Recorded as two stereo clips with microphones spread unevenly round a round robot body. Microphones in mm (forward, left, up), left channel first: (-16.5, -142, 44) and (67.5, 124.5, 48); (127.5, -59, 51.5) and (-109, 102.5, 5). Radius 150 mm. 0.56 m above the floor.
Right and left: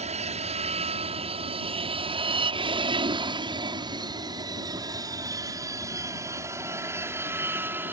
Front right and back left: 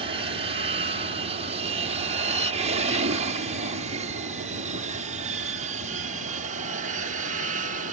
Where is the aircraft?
115° left; by 7.9 s 150° left.